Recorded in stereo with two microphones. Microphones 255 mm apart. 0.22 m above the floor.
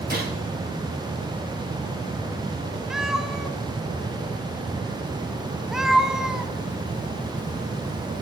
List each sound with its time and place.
0.1 s a gunshot: 35° right (ahead or behind), 3.5 m
2.9 s a cat meowing: centre (ahead or behind), 0.7 m